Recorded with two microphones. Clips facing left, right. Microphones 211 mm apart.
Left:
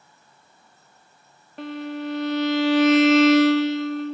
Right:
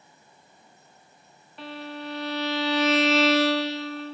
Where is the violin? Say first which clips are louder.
Left 7 dB; 50° left (ahead or behind), 0.7 m.